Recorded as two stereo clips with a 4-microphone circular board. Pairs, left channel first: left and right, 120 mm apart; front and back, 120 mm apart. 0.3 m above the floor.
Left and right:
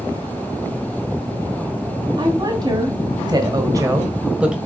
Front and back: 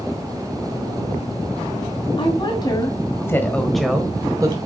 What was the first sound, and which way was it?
A woman speaking, 40° right.